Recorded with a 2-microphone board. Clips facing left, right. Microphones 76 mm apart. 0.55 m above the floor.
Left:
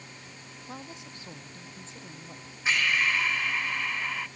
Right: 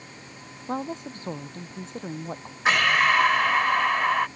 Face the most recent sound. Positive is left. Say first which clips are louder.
# right 7 dB
turn(degrees=-65)  # may be behind; listen again after turning